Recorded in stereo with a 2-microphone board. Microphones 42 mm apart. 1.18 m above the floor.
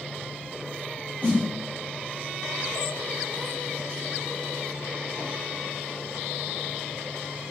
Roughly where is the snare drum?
Left.